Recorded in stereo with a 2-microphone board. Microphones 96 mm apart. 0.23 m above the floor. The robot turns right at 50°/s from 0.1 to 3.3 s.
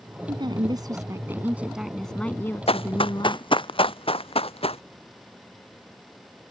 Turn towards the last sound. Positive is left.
turn(degrees=85)